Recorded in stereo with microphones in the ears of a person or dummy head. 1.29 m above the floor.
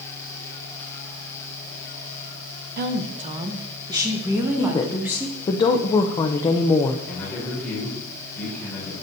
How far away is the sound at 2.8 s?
About 0.6 m.